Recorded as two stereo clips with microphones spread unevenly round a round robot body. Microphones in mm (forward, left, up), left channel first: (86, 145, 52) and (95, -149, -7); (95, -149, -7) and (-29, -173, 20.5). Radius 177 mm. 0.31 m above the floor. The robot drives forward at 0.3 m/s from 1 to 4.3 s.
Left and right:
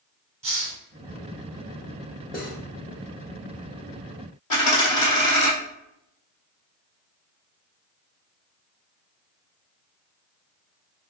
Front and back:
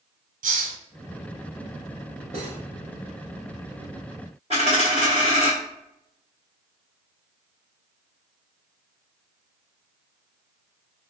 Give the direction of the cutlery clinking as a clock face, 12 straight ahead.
7 o'clock.